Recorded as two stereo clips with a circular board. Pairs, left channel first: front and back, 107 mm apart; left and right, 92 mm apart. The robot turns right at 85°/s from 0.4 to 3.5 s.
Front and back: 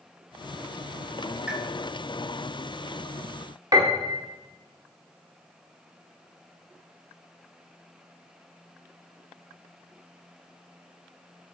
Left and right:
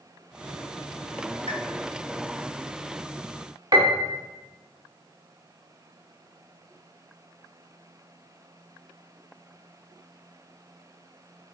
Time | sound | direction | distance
1.5 | a pop | 100° left | 3 m
3.7 | a piano | 130° right | 1.7 m